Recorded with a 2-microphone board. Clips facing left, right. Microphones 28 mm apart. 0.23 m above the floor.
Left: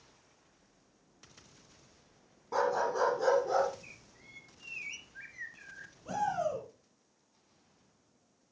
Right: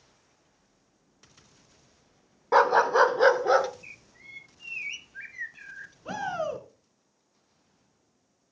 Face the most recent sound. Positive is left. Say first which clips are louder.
# right 1 dB
turn(degrees=-40)  # may be behind; listen again after turning